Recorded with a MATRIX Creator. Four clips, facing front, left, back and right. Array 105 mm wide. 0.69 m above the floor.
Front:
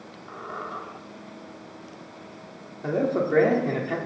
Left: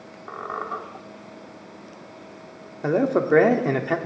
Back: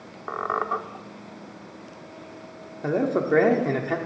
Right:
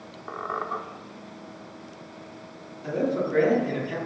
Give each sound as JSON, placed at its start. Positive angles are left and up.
{"t": 0.3, "sound": "a squeak", "azimuth_deg": 180, "distance_m": 0.8}
{"t": 2.8, "sound": "a man speaking", "azimuth_deg": 105, "distance_m": 1.2}